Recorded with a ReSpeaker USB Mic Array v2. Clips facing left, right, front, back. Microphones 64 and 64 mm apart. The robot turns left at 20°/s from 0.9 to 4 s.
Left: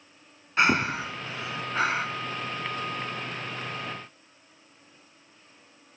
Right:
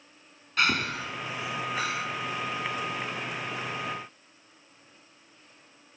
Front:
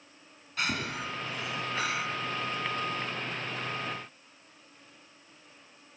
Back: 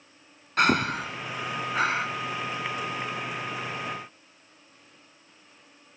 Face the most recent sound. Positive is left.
turn(degrees=90)